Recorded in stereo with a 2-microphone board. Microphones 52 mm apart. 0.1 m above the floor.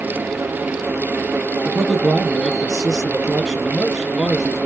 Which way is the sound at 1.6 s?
5° left (ahead or behind).